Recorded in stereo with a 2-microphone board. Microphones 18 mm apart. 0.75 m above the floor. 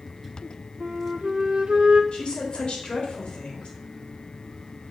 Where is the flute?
75° right (ahead or behind), 0.8 m.